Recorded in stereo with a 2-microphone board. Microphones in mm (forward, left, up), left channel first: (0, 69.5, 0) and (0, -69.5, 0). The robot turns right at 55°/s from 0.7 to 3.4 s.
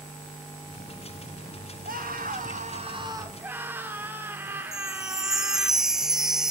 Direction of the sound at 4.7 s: 5° right (ahead or behind).